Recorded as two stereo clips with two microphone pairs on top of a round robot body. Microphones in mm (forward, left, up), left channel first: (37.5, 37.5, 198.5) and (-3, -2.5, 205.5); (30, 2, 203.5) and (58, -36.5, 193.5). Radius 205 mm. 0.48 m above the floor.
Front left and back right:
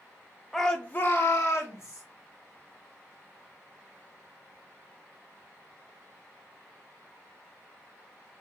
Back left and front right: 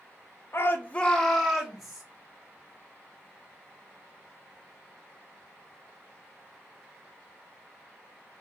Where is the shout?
120° left, 0.7 m; by 2.0 s 10° left, 1.4 m.